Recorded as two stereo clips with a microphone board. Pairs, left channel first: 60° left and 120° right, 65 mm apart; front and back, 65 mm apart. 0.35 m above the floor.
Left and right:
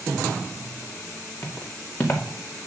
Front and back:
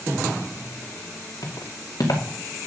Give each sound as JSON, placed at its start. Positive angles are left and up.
{"t": 1.4, "sound": "footsteps", "azimuth_deg": 10, "distance_m": 2.0}